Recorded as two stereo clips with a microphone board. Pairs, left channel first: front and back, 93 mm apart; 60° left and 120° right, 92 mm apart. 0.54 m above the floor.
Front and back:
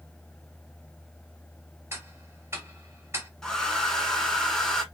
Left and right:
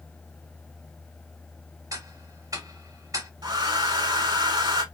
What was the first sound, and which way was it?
Ticking, 140° right.